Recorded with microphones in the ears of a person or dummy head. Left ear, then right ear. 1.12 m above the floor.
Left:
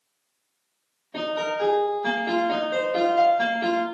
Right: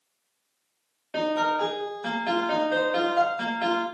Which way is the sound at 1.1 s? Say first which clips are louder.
Right 2 dB; 65° right (ahead or behind).